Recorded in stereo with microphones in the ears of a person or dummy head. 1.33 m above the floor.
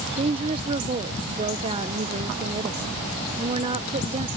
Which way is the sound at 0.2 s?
30° right (ahead or behind).